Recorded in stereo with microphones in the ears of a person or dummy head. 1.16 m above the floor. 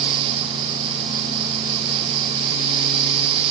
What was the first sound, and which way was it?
Only background noise.